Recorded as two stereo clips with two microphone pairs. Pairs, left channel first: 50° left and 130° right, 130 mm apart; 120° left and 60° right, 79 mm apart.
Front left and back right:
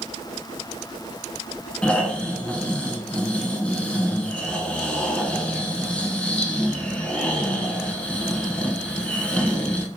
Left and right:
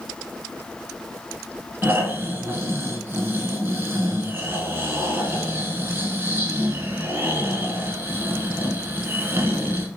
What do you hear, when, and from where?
1.8 s snoring: 25° right, 0.8 m